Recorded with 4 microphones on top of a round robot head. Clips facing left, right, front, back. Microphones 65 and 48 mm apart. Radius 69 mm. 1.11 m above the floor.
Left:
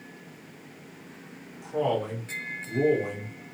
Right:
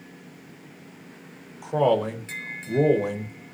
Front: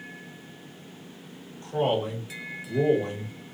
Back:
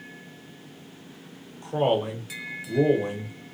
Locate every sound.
1.6 s a man speaking: 110° right, 0.6 m